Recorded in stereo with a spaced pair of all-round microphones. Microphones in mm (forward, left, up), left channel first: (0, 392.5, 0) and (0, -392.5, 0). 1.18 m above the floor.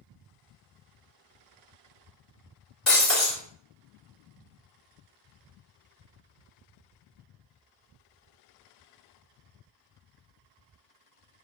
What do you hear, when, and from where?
2.9 s breaking glass: 60° left (ahead or behind), 1.7 m